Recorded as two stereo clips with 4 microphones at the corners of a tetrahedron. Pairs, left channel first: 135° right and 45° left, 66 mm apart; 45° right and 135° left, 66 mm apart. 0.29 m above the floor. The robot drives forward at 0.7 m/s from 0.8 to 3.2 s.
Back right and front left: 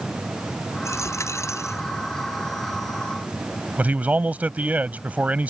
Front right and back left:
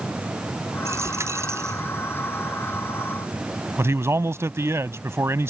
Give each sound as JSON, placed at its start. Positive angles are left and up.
{"t": 0.8, "sound": "a dropped coin", "azimuth_deg": 180}
{"t": 3.8, "sound": "a man speaking", "azimuth_deg": 105}